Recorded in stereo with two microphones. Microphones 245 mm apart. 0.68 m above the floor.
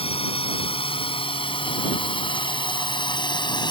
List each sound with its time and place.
0.0 s a drone: 25° left (ahead or behind); by 3.7 s 20° left (ahead or behind)